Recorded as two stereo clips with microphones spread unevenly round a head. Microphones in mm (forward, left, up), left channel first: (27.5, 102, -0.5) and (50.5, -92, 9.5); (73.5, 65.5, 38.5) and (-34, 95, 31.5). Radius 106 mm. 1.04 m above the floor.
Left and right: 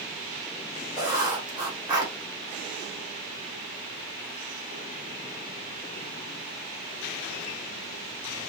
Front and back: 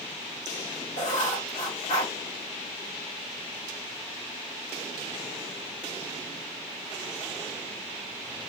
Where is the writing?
10° right, 2.5 m.